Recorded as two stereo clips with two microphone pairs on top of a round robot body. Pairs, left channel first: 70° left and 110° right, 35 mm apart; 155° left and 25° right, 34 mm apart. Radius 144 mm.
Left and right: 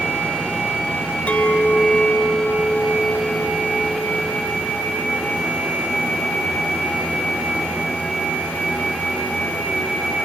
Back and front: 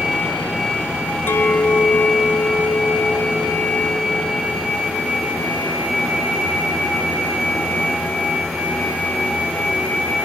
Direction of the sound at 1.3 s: 125° left.